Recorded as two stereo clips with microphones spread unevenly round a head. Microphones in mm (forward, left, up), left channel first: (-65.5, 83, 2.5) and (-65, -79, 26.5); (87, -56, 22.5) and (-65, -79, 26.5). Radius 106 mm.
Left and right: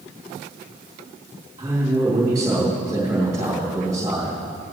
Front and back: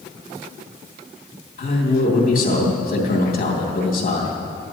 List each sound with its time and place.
1.6 s a man speaking: 15° right, 2.5 m